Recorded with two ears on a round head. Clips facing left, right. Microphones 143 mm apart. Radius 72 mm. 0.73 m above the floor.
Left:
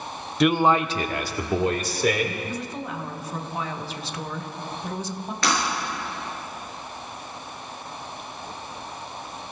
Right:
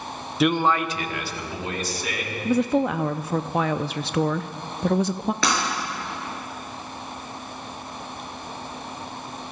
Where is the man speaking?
5° right (ahead or behind), 0.7 m; by 2.4 s 50° left (ahead or behind), 2.5 m.